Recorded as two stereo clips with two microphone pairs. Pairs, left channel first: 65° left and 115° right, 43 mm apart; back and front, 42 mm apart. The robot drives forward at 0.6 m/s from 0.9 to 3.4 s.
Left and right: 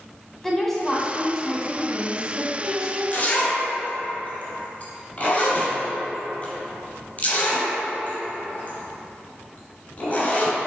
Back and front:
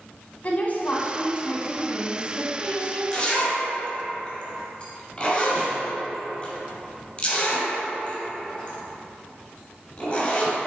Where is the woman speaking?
145° left, 1.7 m; by 3.0 s 165° left, 2.5 m.